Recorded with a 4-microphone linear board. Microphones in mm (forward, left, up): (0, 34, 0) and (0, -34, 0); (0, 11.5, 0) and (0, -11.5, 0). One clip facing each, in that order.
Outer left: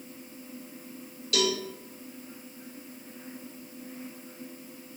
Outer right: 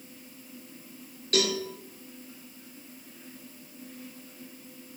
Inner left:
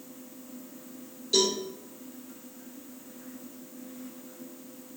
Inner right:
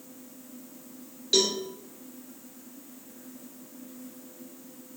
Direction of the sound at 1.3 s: 45° right (ahead or behind).